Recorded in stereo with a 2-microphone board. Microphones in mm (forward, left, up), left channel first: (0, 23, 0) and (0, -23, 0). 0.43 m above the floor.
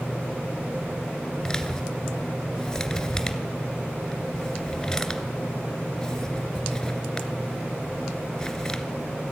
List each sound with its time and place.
1.4 s a man speaking: 10° left (ahead or behind), 2 m